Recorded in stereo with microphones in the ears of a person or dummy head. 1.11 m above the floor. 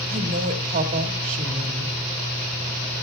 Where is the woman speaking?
40° right (ahead or behind), 2 m.